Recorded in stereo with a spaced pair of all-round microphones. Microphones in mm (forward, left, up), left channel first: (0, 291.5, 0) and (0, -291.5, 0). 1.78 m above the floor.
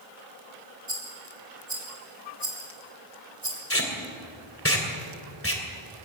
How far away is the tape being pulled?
About 2.5 m.